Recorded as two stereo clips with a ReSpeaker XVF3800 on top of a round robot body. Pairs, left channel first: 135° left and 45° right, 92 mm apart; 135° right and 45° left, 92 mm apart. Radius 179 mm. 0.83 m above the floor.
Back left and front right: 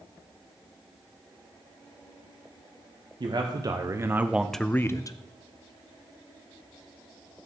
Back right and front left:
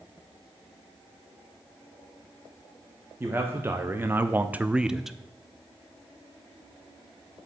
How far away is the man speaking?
About 1.2 m.